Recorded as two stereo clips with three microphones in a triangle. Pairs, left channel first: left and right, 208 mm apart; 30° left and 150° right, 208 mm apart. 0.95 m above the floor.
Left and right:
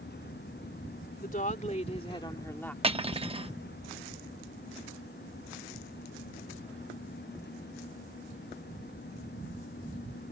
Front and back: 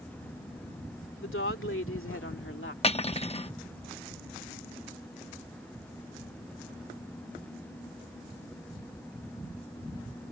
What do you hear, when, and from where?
1.2 s a woman speaking: 45° left; by 2.7 s 10° left
2.8 s cutlery clinking: 30° right